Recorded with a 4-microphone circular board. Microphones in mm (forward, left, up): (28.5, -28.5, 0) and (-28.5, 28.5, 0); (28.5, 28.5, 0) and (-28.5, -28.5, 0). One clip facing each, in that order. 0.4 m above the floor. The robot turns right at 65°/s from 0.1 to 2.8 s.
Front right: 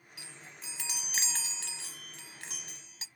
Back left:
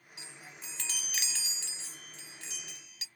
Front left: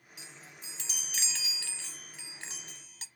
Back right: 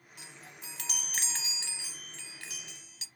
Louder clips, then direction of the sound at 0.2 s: Back left 1 dB, back right 1 dB; 165° right.